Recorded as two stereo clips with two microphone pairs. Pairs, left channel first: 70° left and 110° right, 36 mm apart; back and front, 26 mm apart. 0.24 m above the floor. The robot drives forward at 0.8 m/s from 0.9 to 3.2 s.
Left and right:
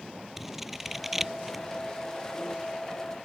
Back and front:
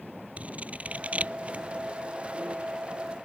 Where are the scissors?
25° right; by 1.6 s 30° right.